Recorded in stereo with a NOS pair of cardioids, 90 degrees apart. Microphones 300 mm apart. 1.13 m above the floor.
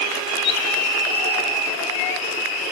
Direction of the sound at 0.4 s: 60° left.